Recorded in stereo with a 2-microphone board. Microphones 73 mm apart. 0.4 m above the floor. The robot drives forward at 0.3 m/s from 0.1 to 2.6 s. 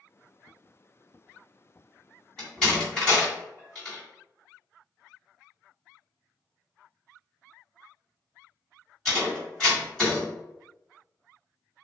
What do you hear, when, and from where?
2.4 s a door slam: 10° left (ahead or behind), 1.8 m